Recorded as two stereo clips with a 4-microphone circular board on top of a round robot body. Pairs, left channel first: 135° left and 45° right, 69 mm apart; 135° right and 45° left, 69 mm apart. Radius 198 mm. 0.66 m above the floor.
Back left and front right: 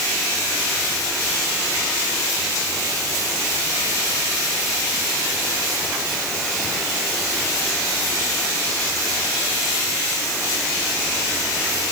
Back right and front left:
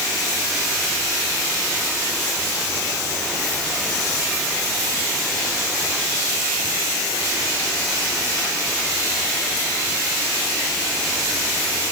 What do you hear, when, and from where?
Only background noise.